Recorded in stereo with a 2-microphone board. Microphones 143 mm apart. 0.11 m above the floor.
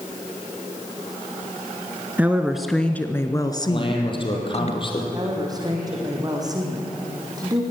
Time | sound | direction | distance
2.2 | a woman speaking | 15° right (ahead or behind) | 1.2 m
3.7 | a man speaking | 35° left (ahead or behind) | 4 m
5.1 | a woman speaking | 25° right (ahead or behind) | 4.5 m